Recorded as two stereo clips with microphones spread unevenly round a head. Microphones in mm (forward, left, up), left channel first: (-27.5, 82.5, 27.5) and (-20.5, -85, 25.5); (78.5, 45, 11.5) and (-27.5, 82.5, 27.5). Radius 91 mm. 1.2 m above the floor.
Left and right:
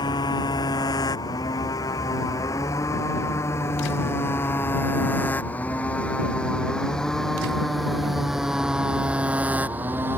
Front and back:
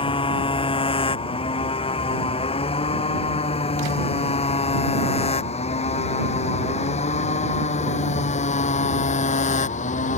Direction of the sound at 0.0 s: 20° left.